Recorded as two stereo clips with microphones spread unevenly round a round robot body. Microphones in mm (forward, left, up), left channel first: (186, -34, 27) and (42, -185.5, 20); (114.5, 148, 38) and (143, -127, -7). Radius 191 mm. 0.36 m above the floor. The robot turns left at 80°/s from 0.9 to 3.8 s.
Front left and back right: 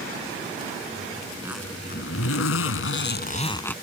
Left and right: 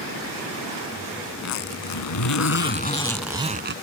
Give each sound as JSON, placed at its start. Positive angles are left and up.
{"t": 1.3, "sound": "a zipper", "azimuth_deg": 160}